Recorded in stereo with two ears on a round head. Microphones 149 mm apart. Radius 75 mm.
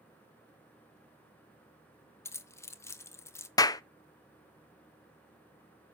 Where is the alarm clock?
I don't hear an alarm clock.